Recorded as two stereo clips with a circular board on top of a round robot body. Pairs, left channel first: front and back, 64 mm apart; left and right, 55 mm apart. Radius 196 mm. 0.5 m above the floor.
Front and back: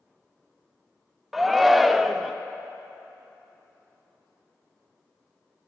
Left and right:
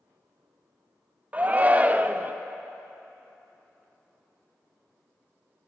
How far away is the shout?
About 0.8 m.